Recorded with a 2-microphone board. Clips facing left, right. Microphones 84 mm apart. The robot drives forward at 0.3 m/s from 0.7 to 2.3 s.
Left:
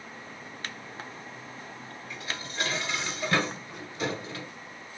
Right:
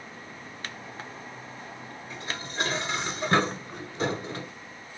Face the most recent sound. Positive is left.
turn(degrees=-30)  # may be behind; listen again after turning